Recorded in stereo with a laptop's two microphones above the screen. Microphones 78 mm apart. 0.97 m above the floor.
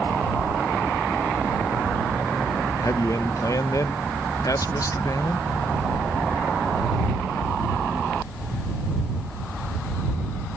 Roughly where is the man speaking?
Left.